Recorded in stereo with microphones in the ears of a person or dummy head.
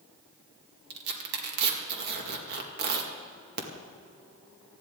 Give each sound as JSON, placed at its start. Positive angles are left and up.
{"t": 0.9, "sound": "tearing paper", "side_deg": -65, "distance_m": 2.0}